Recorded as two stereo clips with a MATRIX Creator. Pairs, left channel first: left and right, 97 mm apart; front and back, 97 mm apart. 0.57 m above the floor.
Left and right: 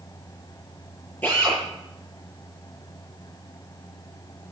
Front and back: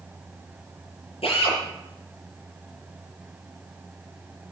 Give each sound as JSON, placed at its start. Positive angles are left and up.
{"t": 1.2, "sound": "a drill", "azimuth_deg": 15, "distance_m": 8.5}